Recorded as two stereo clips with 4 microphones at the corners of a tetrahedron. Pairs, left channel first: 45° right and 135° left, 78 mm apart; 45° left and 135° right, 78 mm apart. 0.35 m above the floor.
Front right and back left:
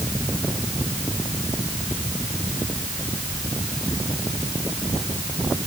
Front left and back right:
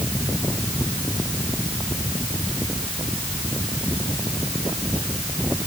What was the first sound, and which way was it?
Only background noise.